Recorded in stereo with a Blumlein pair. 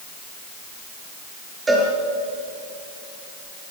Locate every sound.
1.7 s a cowbell: 10° right, 5.5 m